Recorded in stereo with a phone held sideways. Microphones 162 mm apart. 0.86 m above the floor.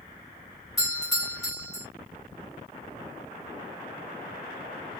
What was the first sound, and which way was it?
A doorbell, 20° left (ahead or behind).